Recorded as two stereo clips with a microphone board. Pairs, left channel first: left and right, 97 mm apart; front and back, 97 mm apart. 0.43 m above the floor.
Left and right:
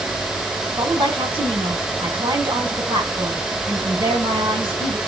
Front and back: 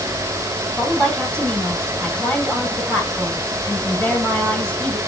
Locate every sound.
0.8 s a woman speaking: 80° right, 2 m